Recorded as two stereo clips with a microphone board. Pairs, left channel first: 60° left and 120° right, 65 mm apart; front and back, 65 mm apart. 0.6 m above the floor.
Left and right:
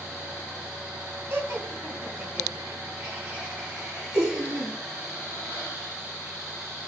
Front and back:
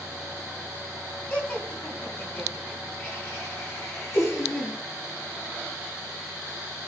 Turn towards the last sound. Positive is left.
turn(degrees=-45)